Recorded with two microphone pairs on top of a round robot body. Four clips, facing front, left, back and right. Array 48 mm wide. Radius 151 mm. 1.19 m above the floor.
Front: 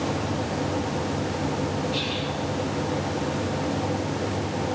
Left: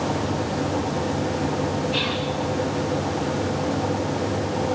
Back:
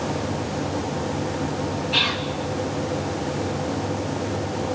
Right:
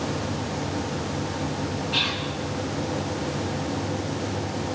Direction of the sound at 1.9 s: 170° right.